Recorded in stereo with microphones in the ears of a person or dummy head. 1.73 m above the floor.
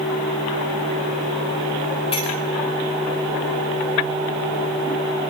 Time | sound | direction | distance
2.1 | a clink | 35° left (ahead or behind) | 6 m